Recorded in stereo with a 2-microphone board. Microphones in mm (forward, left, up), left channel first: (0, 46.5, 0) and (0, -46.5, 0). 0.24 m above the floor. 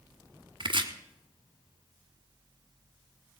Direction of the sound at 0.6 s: 60° right (ahead or behind).